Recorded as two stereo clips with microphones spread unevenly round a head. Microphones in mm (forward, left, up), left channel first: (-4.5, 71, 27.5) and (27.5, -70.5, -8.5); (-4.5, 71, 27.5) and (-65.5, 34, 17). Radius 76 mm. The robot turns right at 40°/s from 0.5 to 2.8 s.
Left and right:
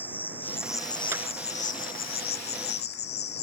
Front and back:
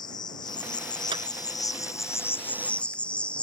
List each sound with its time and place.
0.0 s an insect: 15° left; by 3.4 s 110° left
1.1 s a clap: 155° right; by 1.2 s 150° right